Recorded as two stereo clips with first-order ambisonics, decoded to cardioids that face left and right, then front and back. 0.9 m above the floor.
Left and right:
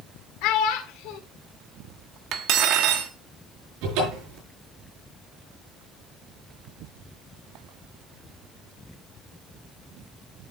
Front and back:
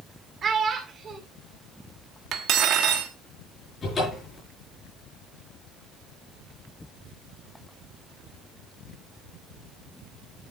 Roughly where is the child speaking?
Behind left.